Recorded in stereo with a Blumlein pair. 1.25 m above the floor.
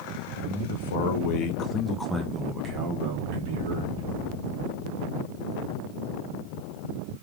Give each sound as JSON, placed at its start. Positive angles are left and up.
{"t": 0.4, "sound": "a man speaking", "azimuth_deg": 65, "distance_m": 1.4}